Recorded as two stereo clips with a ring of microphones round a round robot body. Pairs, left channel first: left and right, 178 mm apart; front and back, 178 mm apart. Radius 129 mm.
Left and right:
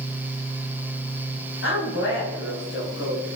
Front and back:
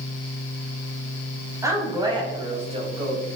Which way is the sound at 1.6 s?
105° left.